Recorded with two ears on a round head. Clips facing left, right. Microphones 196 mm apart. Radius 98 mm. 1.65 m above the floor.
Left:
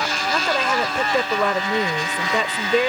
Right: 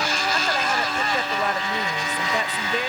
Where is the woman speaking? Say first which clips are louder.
Left 6 dB; 65° left (ahead or behind).